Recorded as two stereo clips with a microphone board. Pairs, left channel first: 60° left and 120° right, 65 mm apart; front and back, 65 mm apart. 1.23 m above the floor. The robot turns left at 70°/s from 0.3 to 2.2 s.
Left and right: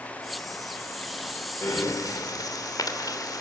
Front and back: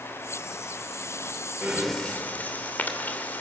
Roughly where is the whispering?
I don't hear whispering.